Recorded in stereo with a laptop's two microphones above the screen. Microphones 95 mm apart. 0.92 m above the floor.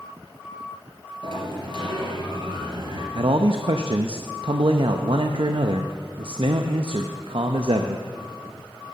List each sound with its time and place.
1.2 s a sliding door: 60° right (ahead or behind), 3 m
3.1 s a man speaking: 65° right (ahead or behind), 0.6 m